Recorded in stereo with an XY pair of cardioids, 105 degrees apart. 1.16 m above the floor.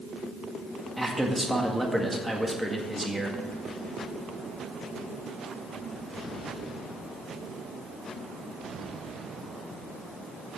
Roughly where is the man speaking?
Ahead.